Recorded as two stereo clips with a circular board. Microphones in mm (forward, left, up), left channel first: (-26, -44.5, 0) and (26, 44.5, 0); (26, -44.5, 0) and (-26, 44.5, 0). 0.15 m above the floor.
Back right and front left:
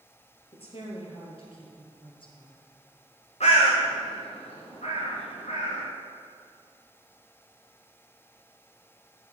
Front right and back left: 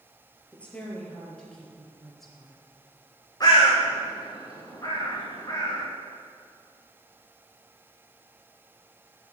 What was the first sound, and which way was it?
A woman speaking, 135° right.